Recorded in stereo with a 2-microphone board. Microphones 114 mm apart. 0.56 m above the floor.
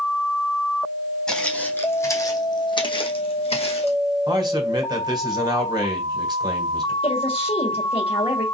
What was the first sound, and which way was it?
Footsteps, 5° left (ahead or behind).